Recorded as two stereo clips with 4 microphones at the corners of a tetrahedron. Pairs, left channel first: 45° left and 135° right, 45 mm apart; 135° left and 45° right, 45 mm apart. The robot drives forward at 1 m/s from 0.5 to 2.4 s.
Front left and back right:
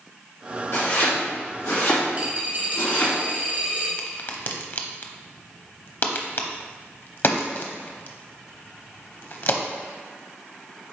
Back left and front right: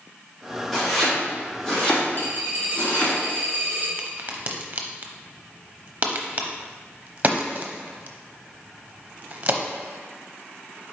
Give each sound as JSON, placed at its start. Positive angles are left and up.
{"t": 0.7, "sound": "chopping", "azimuth_deg": 45, "distance_m": 3.0}
{"t": 2.1, "sound": "a dropped coin", "azimuth_deg": 165, "distance_m": 2.0}
{"t": 4.0, "sound": "a crack", "azimuth_deg": 10, "distance_m": 0.7}